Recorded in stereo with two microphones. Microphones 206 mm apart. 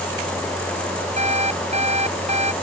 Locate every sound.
1.2 s an alarm clock: 30° right (ahead or behind)